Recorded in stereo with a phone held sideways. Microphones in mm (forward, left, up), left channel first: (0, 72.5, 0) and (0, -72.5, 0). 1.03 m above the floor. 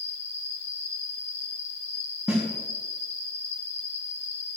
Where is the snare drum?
5° right (ahead or behind), 5.5 m.